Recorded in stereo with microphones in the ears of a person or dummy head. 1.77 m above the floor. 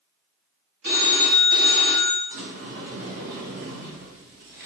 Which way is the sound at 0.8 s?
45° right (ahead or behind).